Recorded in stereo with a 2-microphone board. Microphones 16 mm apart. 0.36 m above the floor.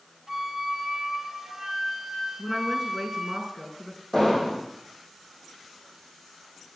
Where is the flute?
30° right (ahead or behind), 3 m.